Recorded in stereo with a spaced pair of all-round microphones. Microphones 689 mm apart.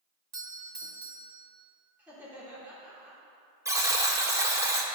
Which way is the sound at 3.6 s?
5° right (ahead or behind).